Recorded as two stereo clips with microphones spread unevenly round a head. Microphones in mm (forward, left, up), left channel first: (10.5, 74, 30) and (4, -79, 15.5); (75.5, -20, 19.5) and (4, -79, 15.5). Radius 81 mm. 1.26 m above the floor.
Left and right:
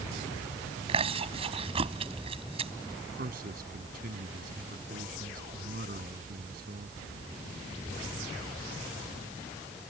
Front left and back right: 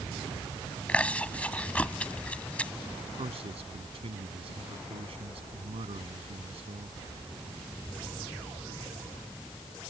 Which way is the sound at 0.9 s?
35° right.